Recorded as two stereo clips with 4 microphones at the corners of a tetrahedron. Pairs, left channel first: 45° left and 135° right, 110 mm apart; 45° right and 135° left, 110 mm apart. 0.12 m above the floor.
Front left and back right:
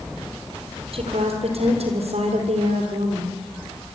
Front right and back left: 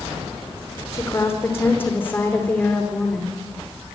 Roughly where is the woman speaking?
Right.